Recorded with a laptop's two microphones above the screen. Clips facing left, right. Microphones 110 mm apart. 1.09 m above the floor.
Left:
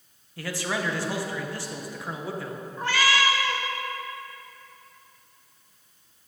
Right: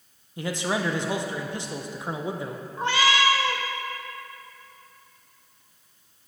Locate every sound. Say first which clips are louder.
0.4 s a man speaking: right 3 dB; 20° right (ahead or behind), 0.6 m
2.8 s a cat meowing: right 2 dB; 25° right (ahead or behind), 0.9 m